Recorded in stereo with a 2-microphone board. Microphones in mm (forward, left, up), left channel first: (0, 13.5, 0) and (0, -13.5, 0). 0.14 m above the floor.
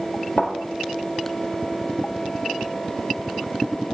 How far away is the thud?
About 1.2 m.